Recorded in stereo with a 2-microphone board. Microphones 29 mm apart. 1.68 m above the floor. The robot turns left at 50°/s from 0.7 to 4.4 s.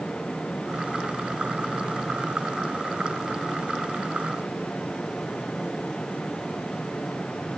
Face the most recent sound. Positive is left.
No sound to turn to.